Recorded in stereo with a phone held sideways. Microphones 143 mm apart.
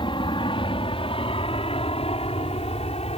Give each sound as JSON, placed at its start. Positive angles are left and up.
{"t": 0.0, "sound": "an aircraft", "side_deg": 35}